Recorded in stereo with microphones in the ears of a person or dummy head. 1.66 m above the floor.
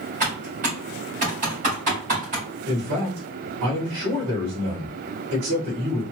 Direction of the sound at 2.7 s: 55° right (ahead or behind).